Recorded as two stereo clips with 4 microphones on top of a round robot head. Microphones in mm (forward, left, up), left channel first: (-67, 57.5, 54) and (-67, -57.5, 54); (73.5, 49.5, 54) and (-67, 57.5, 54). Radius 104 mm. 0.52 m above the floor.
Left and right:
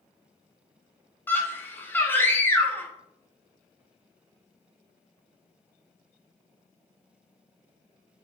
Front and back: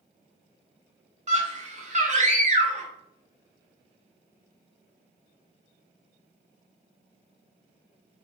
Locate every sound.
1.3 s a scream: 160° left, 1.6 m